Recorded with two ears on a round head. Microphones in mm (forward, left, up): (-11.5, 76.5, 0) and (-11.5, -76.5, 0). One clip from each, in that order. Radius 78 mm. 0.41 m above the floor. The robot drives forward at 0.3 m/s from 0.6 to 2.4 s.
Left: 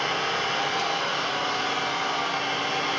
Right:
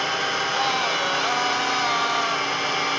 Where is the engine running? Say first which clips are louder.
Right 2 dB; 75° right (ahead or behind), 5 m; by 3.0 s 70° right (ahead or behind), 5.5 m.